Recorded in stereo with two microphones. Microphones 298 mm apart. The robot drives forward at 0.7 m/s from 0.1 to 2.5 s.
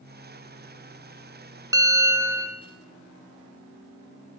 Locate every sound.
1.7 s a bell: 10° right (ahead or behind), 1.3 m